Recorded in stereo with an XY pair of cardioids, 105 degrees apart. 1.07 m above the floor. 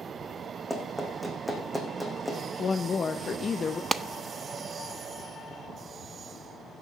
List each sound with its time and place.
0.7 s running footsteps: 5° right, 3.5 m
2.6 s a woman speaking: 35° left, 0.7 m
3.9 s a clap: 30° right, 0.5 m